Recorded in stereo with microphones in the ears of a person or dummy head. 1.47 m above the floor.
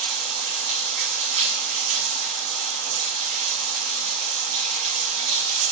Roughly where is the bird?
No bird in this recording.